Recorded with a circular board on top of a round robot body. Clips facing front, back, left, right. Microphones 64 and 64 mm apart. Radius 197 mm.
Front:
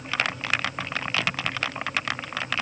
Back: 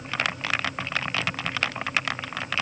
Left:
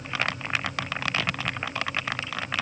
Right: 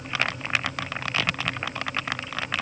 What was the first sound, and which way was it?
Only background noise.